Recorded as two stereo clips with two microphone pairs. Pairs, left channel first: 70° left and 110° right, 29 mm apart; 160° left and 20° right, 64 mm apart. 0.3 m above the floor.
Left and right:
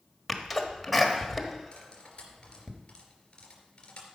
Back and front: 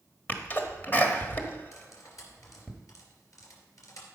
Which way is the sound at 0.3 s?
165° left.